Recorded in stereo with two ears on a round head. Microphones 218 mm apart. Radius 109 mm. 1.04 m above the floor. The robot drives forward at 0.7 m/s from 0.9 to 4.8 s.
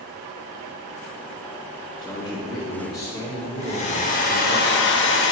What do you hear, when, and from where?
2.0 s a man speaking: 5° left (ahead or behind), 1.2 m; by 4.6 s centre (ahead or behind), 3 m
3.6 s a hair dryer: 25° left (ahead or behind), 1.6 m; by 5.3 s 50° left (ahead or behind), 0.9 m